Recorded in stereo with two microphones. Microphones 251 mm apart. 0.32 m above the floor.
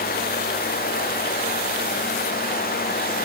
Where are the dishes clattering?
No dishes clattering in this recording.